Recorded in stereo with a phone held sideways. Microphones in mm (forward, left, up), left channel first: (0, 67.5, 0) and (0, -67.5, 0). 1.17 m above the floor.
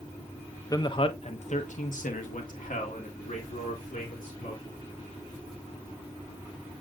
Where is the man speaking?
30° left (ahead or behind), 0.9 m; by 4.6 s 80° left, 3 m.